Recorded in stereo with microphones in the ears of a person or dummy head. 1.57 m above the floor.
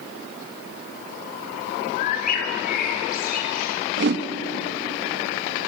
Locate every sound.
2.0 s a bird: 55° left (ahead or behind), 3 m
4.0 s a whoosh: 70° right (ahead or behind), 1.8 m